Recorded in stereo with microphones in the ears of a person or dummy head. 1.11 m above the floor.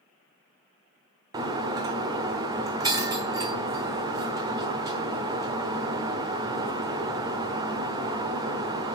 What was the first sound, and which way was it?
Breaking glass, 20° right (ahead or behind).